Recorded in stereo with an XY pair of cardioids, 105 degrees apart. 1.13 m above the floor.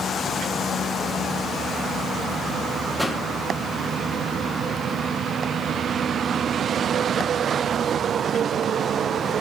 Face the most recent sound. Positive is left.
turn(degrees=0)